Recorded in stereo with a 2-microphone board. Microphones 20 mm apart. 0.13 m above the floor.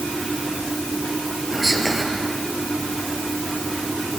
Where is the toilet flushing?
No toilet flushing in this recording.